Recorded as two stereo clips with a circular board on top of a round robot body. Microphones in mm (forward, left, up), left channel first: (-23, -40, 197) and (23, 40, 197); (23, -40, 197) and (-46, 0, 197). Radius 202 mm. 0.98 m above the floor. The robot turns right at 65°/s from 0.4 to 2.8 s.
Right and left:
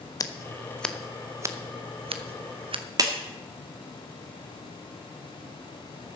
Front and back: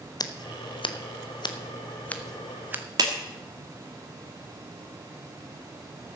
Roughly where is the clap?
Left.